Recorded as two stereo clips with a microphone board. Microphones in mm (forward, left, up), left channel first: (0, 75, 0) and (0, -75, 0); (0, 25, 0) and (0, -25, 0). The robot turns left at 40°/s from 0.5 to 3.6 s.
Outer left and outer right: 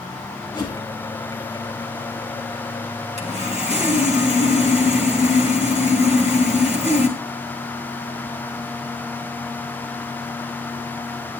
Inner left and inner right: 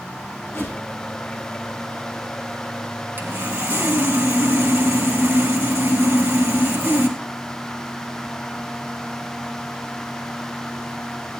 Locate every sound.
0.5 s a whoosh: 60° left (ahead or behind), 3.5 m; by 0.8 s 65° left (ahead or behind), 3.5 m
3.2 s sawing: 45° right (ahead or behind), 2 m